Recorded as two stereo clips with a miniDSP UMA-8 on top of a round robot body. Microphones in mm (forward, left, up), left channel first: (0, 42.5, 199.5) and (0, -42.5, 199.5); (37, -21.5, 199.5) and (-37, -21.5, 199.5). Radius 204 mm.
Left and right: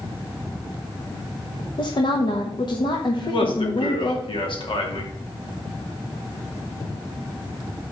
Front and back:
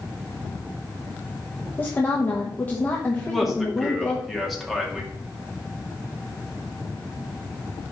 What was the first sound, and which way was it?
A woman speaking, 65° left.